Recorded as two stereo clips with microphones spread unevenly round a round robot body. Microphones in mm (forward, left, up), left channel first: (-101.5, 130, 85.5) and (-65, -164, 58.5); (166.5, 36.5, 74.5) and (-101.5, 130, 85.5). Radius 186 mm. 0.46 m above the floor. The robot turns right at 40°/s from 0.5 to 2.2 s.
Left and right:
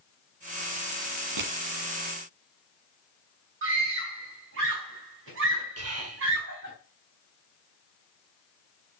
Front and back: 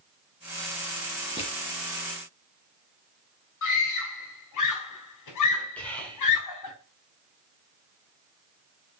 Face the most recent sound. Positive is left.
turn(degrees=-105)